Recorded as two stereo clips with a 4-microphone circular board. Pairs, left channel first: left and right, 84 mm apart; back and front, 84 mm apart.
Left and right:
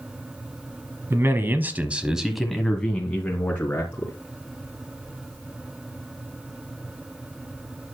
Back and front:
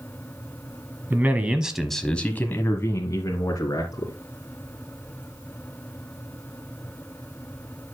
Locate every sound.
1.1 s a man speaking: 50° right, 1.3 m; by 4.1 s 150° left, 2 m